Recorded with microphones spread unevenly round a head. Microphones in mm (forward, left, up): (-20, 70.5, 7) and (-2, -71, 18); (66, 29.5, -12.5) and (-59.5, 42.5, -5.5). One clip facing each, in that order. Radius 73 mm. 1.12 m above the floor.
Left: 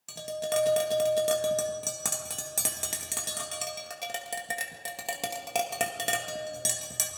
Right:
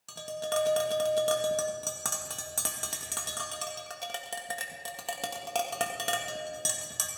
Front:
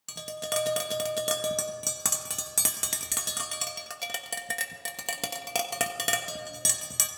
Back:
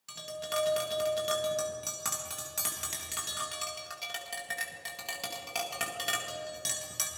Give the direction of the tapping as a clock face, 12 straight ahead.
11 o'clock.